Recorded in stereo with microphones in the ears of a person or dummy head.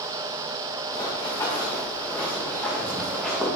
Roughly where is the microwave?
No microwave in this recording.